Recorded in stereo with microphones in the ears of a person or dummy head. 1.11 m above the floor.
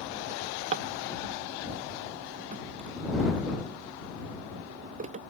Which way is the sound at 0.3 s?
35° right (ahead or behind).